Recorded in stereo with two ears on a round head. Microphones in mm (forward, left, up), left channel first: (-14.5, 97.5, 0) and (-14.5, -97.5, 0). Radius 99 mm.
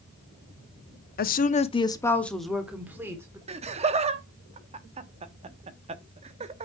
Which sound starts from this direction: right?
Laughter, at 3.5 s.